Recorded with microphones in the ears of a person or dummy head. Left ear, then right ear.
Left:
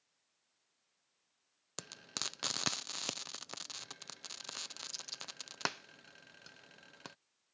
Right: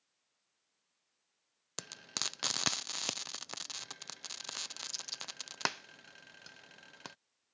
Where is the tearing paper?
I don't hear tearing paper.